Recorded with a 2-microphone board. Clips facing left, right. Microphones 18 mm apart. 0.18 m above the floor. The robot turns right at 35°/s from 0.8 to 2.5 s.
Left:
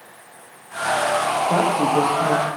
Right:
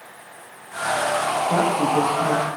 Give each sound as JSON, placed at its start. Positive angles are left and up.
{"t": 1.5, "sound": "a woman speaking", "side_deg": 25, "distance_m": 6.0}